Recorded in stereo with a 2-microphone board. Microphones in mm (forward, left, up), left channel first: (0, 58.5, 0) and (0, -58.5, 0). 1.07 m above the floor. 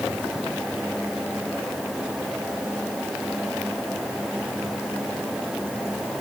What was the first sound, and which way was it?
Only background noise.